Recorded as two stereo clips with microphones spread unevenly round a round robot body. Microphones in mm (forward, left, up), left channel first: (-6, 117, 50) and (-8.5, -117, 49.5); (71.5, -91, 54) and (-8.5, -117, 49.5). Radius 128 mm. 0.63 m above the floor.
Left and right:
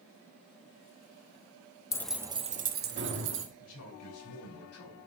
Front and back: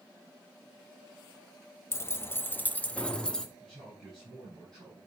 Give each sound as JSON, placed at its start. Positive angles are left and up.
{"t": 1.9, "sound": "keys jangling", "azimuth_deg": 30, "distance_m": 0.6}
{"t": 3.6, "sound": "a man speaking", "azimuth_deg": 105, "distance_m": 5.0}